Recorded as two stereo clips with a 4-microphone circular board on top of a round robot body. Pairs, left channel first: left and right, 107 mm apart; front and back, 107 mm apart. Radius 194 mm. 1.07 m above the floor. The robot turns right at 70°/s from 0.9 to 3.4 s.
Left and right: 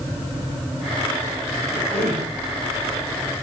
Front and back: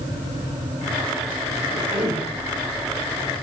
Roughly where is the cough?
Behind right.